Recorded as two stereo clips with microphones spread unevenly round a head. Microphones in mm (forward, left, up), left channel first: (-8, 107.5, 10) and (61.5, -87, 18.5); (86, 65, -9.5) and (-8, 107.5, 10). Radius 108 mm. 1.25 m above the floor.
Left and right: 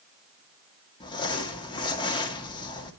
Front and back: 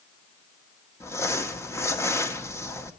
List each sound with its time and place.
1.0 s crumpling: 40° left, 2.0 m